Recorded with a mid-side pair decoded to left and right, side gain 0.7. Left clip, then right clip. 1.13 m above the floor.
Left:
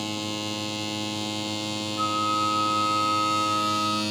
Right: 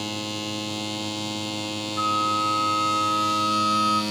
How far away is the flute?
About 1.5 m.